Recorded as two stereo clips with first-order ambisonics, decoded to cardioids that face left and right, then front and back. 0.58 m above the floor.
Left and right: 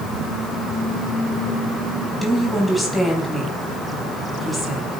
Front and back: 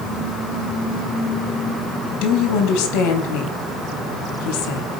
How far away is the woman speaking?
About 4.5 m.